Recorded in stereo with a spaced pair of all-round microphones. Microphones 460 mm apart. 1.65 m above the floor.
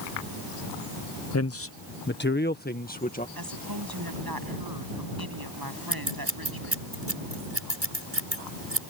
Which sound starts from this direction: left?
A man speaking, at 1.3 s.